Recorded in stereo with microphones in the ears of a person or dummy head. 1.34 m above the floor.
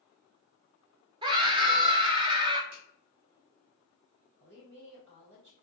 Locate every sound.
1.2 s a scream: 25° right (ahead or behind), 0.7 m
2.7 s a finger snap: 80° right, 1.5 m
4.4 s a woman speaking: 80° right, 1.7 m